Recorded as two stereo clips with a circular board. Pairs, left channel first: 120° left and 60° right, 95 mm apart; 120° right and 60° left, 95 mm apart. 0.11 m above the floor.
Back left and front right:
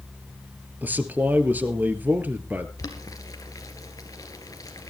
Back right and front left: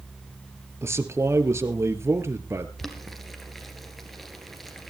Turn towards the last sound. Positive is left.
turn(degrees=150)